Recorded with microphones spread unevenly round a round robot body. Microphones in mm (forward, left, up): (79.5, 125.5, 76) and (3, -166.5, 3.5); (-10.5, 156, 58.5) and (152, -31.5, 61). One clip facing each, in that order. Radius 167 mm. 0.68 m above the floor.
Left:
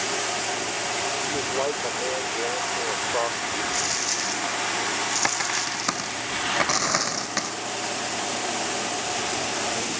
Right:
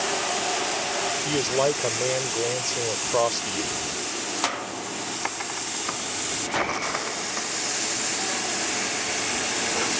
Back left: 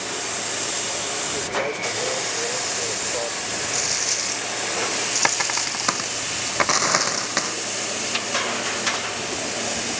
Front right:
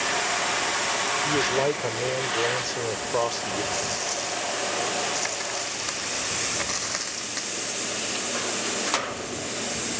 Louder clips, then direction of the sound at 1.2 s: Right 5 dB, front right 4 dB; 80° right.